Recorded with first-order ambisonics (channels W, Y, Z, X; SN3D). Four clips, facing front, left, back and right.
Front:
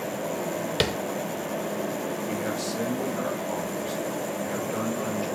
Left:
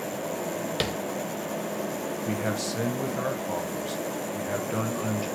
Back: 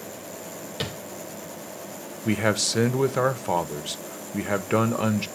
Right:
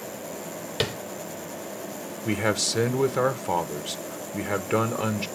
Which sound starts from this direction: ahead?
Tapping, at 0.8 s.